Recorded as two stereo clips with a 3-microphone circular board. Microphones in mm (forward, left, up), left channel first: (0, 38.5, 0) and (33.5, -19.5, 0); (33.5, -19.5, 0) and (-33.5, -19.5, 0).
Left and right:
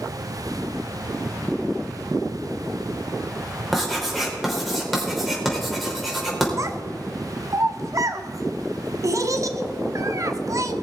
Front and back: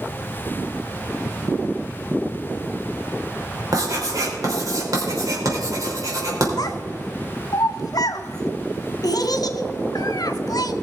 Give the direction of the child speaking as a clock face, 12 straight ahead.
1 o'clock.